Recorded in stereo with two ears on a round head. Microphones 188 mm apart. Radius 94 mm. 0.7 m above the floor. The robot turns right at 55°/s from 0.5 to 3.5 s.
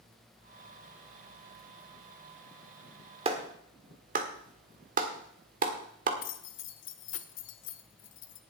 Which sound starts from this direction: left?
Keys jangling, at 6.2 s.